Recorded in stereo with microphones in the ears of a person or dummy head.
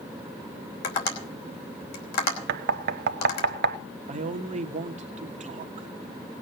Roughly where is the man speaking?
Right.